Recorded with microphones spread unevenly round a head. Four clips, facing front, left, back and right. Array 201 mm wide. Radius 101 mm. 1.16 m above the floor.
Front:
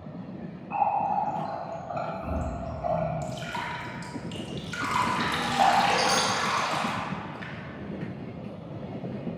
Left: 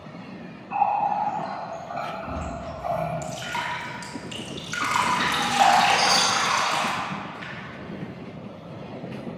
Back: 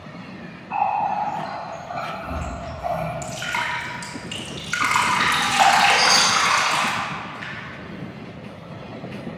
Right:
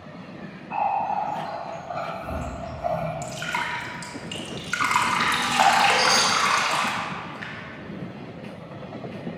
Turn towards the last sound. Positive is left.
turn(degrees=-45)